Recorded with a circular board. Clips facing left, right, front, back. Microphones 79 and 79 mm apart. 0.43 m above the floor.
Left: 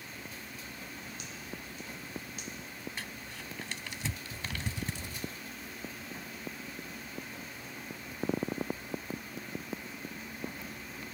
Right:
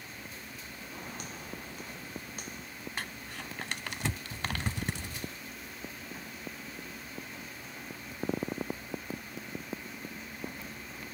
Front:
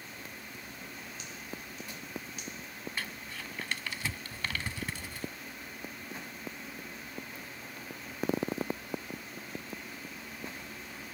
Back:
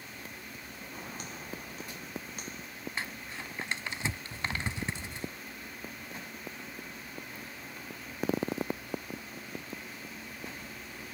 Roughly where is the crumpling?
Behind right.